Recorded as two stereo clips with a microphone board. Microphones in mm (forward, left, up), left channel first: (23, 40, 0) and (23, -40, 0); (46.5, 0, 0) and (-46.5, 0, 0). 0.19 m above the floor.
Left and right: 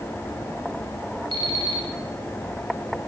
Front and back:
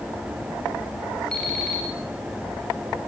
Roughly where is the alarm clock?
Right.